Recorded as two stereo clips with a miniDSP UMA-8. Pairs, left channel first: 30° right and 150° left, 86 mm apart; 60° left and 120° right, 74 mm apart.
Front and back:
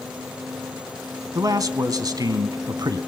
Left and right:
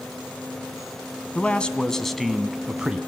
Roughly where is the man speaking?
Behind left.